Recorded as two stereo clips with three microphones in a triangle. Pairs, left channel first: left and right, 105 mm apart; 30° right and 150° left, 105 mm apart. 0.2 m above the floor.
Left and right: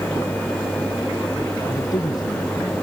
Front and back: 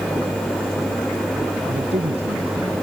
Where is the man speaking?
140° left.